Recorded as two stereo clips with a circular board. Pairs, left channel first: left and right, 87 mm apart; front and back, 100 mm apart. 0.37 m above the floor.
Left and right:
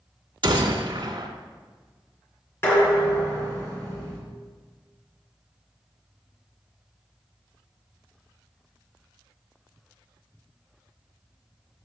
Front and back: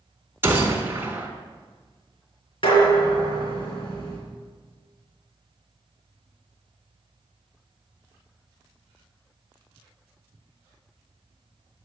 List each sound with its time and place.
0.4 s a gunshot: 115° right, 1.0 m
2.6 s dishes clattering: 30° left, 3 m